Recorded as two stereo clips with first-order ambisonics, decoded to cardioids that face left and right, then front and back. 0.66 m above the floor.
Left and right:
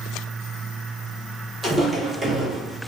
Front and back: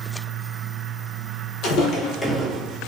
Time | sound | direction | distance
1.6 | footsteps | 20° right | 1.0 m